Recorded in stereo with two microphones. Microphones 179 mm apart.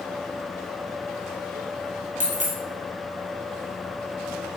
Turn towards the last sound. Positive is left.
turn(degrees=-45)  # may be behind; listen again after turning